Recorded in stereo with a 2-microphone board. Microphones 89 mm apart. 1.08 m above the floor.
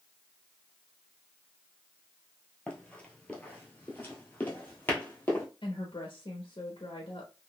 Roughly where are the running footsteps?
Centre.